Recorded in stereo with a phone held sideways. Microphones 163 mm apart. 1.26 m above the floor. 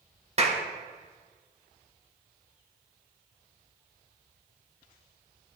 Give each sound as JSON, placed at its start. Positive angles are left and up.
{"t": 0.4, "sound": "a clap", "side_deg": -40, "distance_m": 1.6}